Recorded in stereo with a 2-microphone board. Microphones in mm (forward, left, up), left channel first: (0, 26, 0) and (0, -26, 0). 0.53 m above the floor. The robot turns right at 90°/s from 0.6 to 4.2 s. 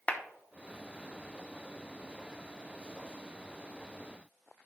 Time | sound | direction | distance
0.1 | a clap | 30° left (ahead or behind) | 0.9 m